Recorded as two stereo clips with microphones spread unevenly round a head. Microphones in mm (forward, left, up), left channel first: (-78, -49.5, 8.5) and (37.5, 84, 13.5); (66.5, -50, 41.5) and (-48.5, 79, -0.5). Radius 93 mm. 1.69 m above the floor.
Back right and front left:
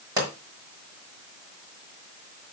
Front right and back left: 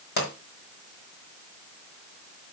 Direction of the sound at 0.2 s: 25° right.